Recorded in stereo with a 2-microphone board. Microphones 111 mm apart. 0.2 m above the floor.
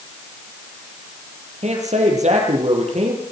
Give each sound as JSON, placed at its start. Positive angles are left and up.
{"t": 1.6, "sound": "a man speaking", "side_deg": -75, "distance_m": 6.5}